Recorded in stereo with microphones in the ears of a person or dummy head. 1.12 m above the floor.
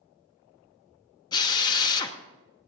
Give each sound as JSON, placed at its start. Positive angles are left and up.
{"t": 1.3, "sound": "a drill", "side_deg": 20, "distance_m": 0.9}